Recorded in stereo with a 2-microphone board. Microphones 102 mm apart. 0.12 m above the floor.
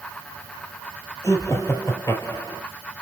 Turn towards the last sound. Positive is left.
turn(degrees=30)  # may be behind; listen again after turning